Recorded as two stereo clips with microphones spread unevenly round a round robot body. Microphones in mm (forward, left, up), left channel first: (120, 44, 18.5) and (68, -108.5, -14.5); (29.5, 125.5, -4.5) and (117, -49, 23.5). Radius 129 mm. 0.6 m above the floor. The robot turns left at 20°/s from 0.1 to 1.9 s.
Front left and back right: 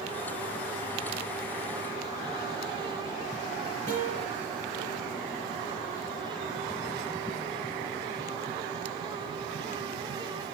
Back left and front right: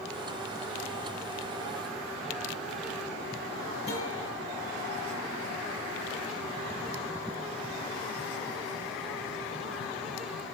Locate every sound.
3.9 s a guitar: 175° right, 6.5 m